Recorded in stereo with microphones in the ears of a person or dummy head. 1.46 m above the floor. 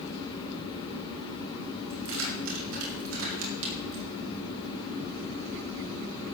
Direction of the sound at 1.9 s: 80° right.